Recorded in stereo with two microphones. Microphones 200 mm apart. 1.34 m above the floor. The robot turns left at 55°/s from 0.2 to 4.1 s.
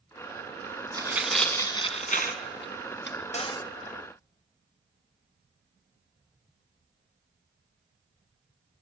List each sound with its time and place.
0.9 s tearing paper: 20° right (ahead or behind), 2.5 m; by 3.2 s 65° left (ahead or behind), 2.5 m
3.3 s a cupboard door: 35° left (ahead or behind), 0.8 m; by 3.7 s 15° left (ahead or behind), 0.8 m